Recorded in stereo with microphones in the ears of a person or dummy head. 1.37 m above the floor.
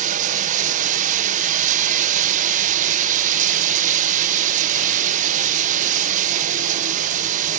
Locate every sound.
0.0 s running water: 40° right (ahead or behind), 0.9 m